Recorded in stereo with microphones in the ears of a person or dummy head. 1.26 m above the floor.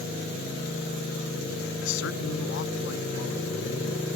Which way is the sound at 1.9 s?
80° left.